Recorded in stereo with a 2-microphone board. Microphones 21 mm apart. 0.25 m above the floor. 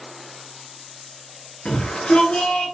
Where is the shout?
50° left (ahead or behind), 4.5 m.